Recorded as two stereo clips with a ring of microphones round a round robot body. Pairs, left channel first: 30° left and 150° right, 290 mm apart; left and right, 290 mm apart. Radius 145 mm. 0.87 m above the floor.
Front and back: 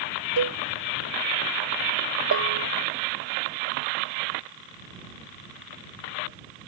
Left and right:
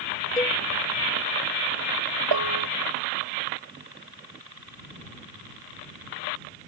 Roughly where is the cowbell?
Behind.